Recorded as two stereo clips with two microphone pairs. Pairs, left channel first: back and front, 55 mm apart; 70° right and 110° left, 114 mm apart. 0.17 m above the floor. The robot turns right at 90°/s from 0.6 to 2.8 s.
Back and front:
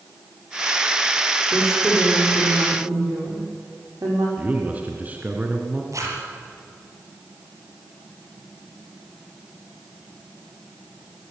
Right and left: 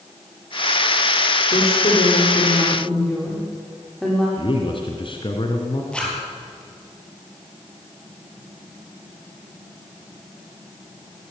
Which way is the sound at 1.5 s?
100° right.